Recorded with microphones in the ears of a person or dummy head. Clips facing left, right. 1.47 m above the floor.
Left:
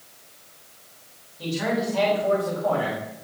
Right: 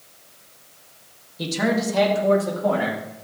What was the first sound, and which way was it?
A man speaking, 75° right (ahead or behind).